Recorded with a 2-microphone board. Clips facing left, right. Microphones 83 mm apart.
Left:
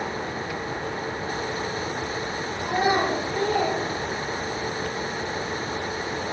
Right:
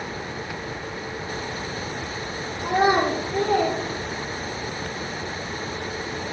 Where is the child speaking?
70° right (ahead or behind), 3 m.